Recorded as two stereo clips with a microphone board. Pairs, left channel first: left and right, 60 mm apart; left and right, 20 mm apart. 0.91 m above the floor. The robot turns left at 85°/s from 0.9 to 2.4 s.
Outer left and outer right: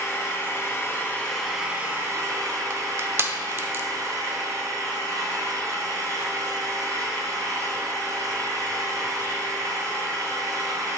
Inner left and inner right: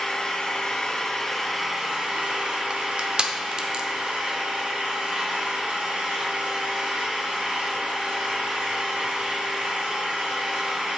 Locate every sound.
0.0 s an engine running: 45° left, 2.0 m; by 11.0 s 85° right, 2.0 m
2.7 s crushing: 40° right (ahead or behind), 0.6 m